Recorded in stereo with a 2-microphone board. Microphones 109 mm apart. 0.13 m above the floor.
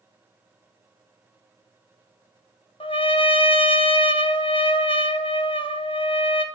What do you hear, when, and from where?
2.8 s a trumpet: 55° left (ahead or behind), 0.6 m